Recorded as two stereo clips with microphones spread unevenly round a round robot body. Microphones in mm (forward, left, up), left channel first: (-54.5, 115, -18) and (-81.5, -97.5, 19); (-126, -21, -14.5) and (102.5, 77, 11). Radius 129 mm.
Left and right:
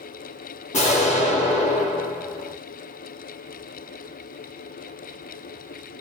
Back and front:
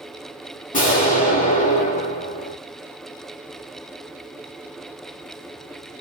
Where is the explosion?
145° left, 1.2 m.